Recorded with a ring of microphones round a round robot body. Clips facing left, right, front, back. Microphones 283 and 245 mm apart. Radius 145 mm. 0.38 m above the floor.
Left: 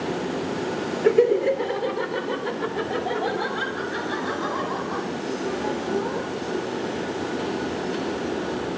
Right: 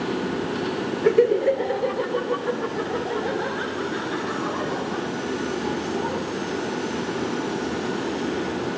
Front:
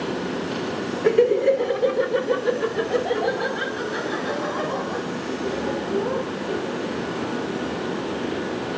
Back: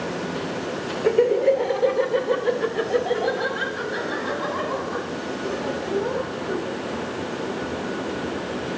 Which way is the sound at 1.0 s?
10° right.